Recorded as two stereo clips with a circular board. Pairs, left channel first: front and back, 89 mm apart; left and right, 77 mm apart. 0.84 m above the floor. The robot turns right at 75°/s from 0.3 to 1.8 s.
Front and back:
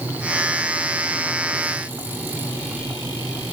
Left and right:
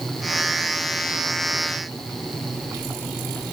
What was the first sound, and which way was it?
Only background noise.